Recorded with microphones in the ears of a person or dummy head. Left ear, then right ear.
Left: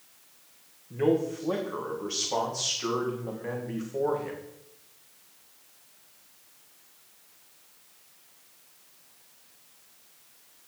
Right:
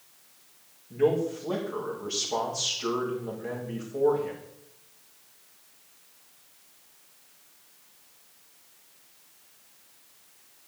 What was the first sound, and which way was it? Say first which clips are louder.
A man speaking: right 1 dB; 15° left (ahead or behind).